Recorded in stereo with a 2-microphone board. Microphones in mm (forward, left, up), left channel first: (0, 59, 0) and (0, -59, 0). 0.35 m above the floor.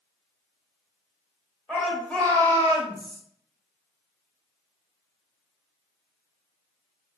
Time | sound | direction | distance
1.7 | a shout | centre (ahead or behind) | 1.2 m